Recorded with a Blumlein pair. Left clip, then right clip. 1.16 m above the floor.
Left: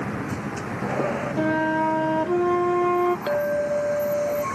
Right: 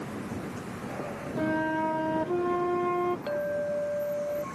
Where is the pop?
I don't hear a pop.